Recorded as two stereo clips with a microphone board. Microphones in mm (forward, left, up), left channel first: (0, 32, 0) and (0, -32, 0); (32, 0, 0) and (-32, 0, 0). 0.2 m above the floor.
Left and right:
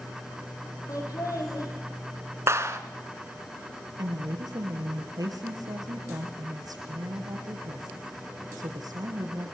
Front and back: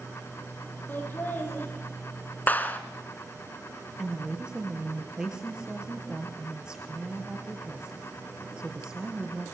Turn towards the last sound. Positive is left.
turn(degrees=-105)